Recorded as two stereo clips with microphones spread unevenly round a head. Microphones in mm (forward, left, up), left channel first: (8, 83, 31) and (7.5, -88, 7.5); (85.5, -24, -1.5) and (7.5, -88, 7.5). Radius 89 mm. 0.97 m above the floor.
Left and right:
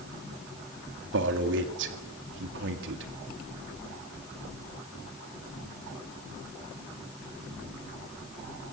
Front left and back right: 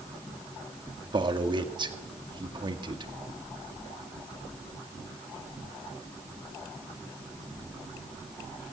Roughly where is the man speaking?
Right.